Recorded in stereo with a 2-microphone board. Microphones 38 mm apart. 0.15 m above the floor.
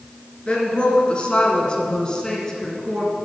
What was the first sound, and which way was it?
A woman speaking, 30° left (ahead or behind).